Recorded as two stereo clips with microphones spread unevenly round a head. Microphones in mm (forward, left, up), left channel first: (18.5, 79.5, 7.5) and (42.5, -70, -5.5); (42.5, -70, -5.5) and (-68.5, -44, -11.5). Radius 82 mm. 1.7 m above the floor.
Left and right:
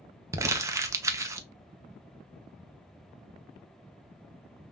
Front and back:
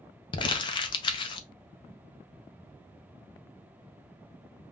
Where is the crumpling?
10° right, 0.6 m.